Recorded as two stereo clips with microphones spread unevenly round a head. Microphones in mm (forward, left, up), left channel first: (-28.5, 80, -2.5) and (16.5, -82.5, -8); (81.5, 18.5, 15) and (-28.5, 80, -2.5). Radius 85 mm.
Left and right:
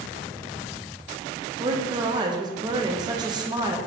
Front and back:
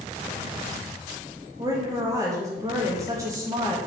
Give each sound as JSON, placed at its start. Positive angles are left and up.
{"t": 1.6, "sound": "a woman speaking", "azimuth_deg": -140, "distance_m": 0.6}